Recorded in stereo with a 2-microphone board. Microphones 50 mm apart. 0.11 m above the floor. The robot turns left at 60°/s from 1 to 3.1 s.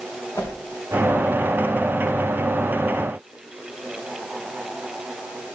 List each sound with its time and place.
0.3 s a whoosh: 85° left, 4.5 m